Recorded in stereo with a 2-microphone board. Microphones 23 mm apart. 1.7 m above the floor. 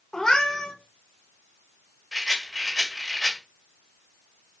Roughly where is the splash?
I don't hear a splash.